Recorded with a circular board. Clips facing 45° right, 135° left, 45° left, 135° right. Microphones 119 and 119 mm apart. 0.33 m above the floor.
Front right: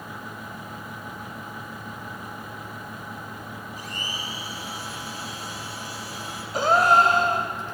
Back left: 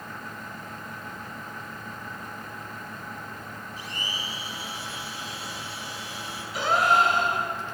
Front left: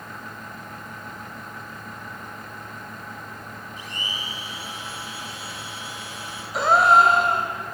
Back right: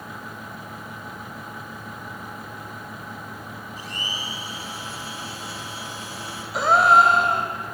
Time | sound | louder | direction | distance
3.8 | a blender | even, back right 1 dB | 85° right | 3 m
6.5 | a gasp | front right 4 dB, even | 45° right | 1.8 m